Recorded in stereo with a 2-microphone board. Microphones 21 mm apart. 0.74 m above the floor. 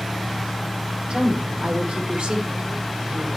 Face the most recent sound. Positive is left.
turn(degrees=-60)  # may be behind; listen again after turning